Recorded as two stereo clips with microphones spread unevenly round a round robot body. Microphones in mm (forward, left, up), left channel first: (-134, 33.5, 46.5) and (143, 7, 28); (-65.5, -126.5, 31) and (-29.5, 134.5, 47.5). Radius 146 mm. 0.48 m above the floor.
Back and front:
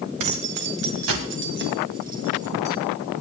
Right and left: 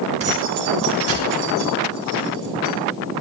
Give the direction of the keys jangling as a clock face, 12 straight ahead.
12 o'clock.